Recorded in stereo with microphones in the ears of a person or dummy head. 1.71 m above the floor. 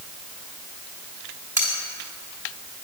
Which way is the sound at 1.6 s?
15° right (ahead or behind).